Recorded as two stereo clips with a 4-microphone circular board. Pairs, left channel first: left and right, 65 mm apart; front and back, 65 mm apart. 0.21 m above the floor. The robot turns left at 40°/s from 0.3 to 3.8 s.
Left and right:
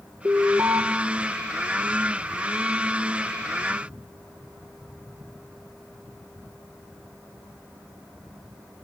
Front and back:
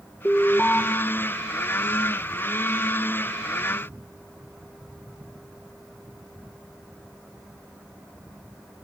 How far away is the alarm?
About 2.5 m.